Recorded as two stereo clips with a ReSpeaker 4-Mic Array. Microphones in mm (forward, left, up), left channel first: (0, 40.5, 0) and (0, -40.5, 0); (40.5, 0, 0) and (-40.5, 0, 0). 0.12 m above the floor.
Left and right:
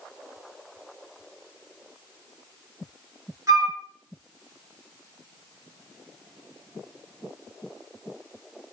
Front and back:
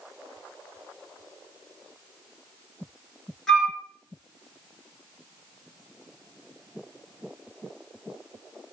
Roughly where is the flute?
Right.